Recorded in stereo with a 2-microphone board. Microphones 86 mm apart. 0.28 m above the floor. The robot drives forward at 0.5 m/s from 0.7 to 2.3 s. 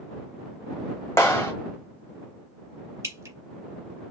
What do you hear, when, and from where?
1.2 s a clap: 35° left (ahead or behind), 0.9 m; by 1.5 s 30° left (ahead or behind), 1.0 m
3.0 s dripping: 35° right (ahead or behind), 0.7 m